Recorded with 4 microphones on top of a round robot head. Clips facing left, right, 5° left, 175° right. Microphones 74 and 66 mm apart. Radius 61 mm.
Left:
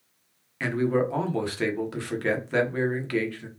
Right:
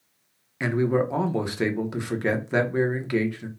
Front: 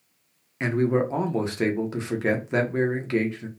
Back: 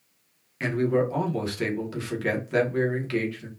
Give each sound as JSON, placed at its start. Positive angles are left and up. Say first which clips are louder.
{"t": 0.6, "sound": "a man speaking", "louder": "right 1 dB, front 1 dB", "azimuth_deg": -35, "distance_m": 0.9}